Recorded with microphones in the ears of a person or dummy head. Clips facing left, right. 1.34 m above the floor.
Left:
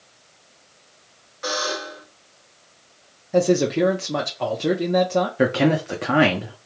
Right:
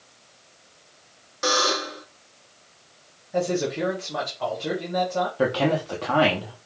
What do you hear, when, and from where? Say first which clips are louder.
1.4 s a buzzer: right 2 dB; 65° right (ahead or behind), 1.3 m
3.3 s a man speaking: left 7 dB; 65° left (ahead or behind), 1.0 m
5.4 s a man speaking: left 3 dB; 25° left (ahead or behind), 0.7 m